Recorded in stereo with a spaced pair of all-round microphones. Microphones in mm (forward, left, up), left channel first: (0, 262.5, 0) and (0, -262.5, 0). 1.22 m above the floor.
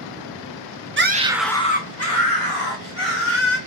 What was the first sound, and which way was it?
A scream, 25° right (ahead or behind).